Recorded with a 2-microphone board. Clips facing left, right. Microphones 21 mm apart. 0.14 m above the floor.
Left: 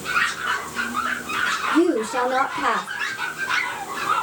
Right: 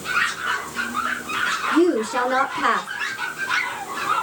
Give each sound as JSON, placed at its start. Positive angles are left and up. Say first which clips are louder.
{"t": 1.7, "sound": "a woman speaking", "louder": "right 1 dB", "side_deg": -40, "distance_m": 1.5}